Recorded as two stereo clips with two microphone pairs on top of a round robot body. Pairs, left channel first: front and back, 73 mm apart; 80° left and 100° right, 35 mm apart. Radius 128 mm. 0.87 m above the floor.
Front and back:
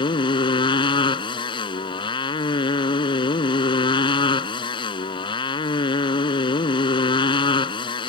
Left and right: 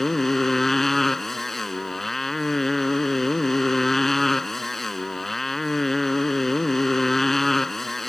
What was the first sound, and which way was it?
A motorcycle, straight ahead.